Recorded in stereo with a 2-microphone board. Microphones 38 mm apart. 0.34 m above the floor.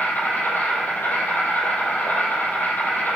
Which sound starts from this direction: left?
An insect, at 0.0 s.